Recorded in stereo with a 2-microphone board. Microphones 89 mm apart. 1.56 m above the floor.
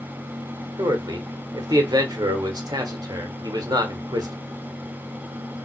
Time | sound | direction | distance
0.8 | a man speaking | 45° right (ahead or behind) | 1.4 m